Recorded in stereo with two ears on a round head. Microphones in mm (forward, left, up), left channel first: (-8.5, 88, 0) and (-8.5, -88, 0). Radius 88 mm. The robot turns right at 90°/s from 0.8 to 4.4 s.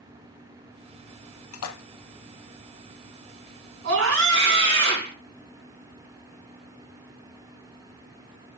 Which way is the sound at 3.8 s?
115° right.